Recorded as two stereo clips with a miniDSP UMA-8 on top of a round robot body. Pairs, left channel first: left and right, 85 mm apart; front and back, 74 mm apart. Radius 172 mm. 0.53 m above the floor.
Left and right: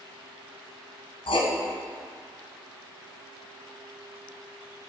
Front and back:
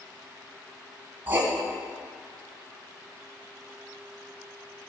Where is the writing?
110° left, 1.4 m.